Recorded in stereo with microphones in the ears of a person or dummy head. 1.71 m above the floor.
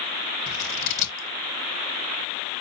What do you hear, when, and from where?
0.5 s scissors: 55° left (ahead or behind), 0.8 m